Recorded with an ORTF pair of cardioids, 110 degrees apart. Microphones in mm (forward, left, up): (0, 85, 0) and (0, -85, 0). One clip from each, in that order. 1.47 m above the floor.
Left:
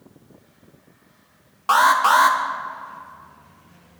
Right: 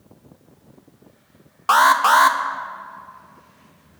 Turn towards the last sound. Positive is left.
turn(degrees=-15)